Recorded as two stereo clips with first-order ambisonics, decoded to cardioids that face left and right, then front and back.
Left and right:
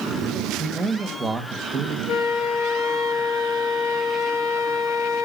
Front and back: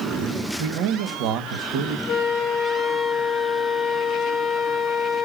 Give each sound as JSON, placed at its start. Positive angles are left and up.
{"t": 0.6, "sound": "a man speaking", "azimuth_deg": -165, "distance_m": 2.5}
{"t": 2.1, "sound": "a flute", "azimuth_deg": 55, "distance_m": 2.0}